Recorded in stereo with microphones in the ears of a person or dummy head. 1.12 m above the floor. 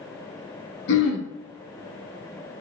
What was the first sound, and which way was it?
Throat clearing, 75° left (ahead or behind).